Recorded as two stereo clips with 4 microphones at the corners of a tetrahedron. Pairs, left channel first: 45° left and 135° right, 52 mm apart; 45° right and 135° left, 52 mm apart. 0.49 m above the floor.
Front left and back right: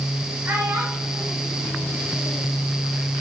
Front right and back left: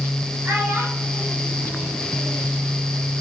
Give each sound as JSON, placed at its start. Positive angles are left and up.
{"t": 0.5, "sound": "a child speaking", "azimuth_deg": 180, "distance_m": 2.5}